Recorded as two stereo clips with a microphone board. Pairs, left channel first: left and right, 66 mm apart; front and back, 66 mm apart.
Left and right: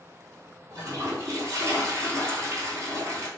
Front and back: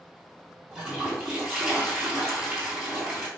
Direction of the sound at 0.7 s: 105° right.